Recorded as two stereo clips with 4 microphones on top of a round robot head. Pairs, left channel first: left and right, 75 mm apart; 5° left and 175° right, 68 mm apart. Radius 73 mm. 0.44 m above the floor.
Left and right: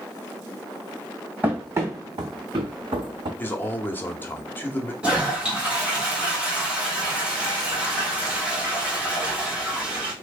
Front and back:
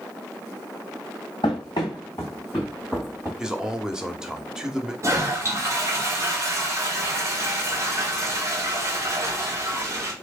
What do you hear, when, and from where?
1.4 s running footsteps: 25° right, 0.8 m; by 3.3 s 95° right, 1.1 m
3.4 s a man speaking: 115° left, 0.8 m
5.0 s a toilet flushing: 160° right, 1.3 m